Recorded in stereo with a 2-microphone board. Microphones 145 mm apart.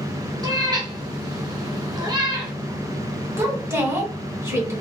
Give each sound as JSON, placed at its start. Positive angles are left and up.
{"t": 0.4, "sound": "a cat meowing", "side_deg": -30, "distance_m": 1.1}
{"t": 3.4, "sound": "a woman speaking", "side_deg": -20, "distance_m": 1.8}